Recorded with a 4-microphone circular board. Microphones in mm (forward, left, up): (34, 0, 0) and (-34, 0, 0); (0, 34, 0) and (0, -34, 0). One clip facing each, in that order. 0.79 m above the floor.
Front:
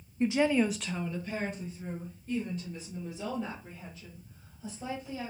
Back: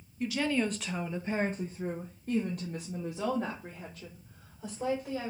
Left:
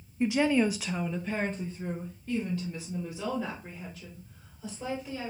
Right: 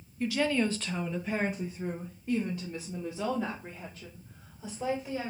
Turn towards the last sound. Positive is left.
turn(degrees=-155)